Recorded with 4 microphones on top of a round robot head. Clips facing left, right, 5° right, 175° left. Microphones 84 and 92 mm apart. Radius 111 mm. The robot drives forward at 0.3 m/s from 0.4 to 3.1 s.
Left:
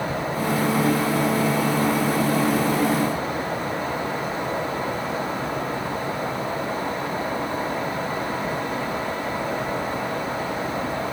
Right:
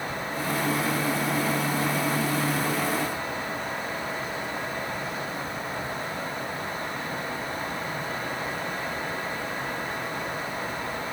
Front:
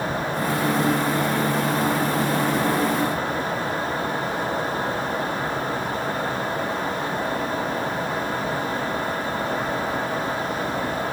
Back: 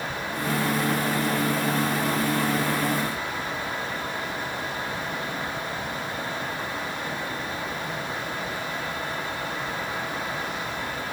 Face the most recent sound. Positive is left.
No sound to turn to.